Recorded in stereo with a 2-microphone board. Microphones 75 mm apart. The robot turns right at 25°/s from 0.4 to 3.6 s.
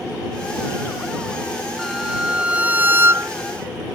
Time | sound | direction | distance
1.8 | a violin | straight behind | ?